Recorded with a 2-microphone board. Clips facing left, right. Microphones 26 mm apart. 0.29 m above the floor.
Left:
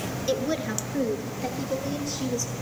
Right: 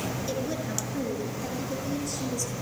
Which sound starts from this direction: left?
A woman speaking, at 0.3 s.